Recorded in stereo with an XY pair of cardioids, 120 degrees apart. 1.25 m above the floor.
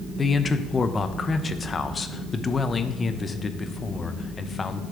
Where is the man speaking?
25° left, 0.6 m.